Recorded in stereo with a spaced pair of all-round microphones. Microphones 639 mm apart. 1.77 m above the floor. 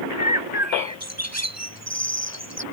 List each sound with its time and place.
0.2 s a bird: 25° right (ahead or behind)